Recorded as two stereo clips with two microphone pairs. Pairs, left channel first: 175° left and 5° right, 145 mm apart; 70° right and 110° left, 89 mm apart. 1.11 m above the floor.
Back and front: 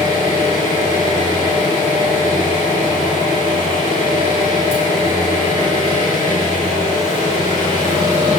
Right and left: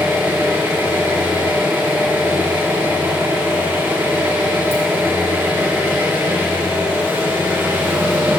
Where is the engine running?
170° left, 3.5 m.